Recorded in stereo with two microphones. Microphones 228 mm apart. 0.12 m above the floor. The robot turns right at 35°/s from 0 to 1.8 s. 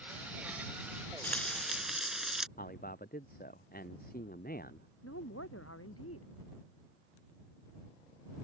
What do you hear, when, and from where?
1.2 s frying: 5° left (ahead or behind); by 2.5 s centre (ahead or behind)
2.6 s a man speaking: 40° left (ahead or behind)
5.0 s a woman speaking: 85° left